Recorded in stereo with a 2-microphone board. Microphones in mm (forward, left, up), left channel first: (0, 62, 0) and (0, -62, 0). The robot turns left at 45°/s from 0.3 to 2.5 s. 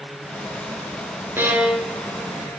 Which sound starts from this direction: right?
A violin, at 1.4 s.